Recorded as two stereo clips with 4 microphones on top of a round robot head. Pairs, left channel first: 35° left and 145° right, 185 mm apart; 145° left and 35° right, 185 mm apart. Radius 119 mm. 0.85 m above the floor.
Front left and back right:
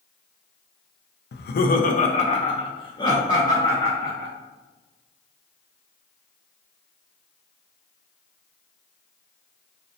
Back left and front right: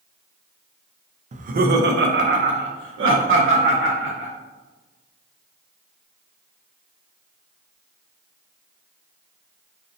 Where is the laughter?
15° left, 0.6 m; by 4.3 s 40° right, 1.9 m.